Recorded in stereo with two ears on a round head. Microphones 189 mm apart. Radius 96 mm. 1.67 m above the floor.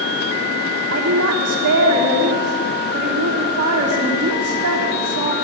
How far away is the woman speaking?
About 3 m.